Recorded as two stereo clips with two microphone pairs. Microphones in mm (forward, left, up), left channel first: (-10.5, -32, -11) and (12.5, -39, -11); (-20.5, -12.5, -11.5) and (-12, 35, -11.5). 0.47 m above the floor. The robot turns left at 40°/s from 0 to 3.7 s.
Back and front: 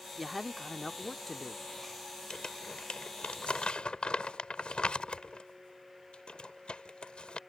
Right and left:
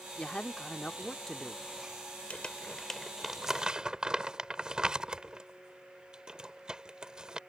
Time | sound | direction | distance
0.2 | a man speaking | 115° right | ?
2.3 | crumpling | 155° right | ?